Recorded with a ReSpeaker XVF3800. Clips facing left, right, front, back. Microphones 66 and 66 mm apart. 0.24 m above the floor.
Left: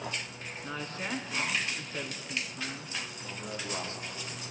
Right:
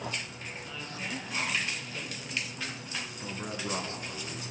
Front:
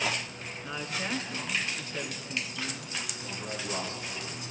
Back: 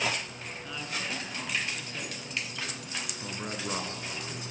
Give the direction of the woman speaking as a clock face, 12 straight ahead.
10 o'clock.